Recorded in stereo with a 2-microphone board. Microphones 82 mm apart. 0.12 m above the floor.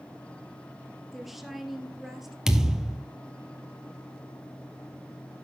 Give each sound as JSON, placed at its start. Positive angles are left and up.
{"t": 1.1, "sound": "a woman speaking", "side_deg": 0, "distance_m": 2.5}
{"t": 2.5, "sound": "a thud", "side_deg": -10, "distance_m": 1.2}